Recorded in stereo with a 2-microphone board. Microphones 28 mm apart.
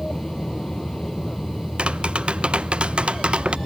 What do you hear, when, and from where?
0.0 s an aircraft: 15° left (ahead or behind); by 3.7 s 25° left (ahead or behind)
1.8 s tapping: 45° right (ahead or behind)